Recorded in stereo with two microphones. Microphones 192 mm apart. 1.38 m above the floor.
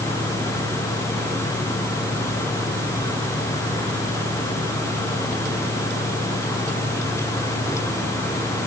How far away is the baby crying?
I don't hear a baby crying.